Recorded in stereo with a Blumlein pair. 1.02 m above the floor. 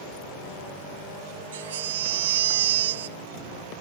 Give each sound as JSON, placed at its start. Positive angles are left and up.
{"t": 1.5, "sound": "a baby crying", "azimuth_deg": -60}